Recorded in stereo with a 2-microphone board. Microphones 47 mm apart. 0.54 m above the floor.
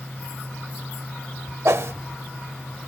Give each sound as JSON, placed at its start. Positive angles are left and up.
{"t": 1.6, "sound": "a whoosh", "side_deg": -60, "distance_m": 0.6}